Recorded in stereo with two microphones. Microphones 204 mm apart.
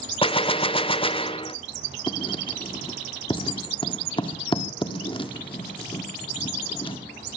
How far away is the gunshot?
About 0.8 m.